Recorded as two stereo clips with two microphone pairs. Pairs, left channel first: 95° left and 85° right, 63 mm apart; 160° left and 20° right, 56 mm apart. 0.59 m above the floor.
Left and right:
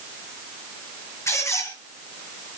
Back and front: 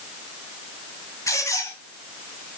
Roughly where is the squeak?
Behind left.